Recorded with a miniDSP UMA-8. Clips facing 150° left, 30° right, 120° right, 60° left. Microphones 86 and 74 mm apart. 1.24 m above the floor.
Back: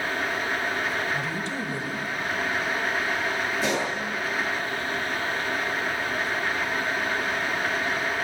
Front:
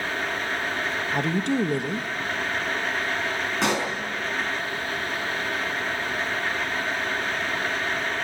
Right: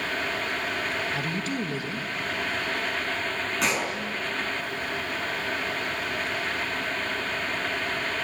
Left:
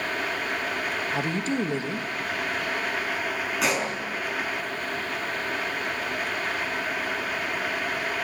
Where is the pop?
30° right, 5 m.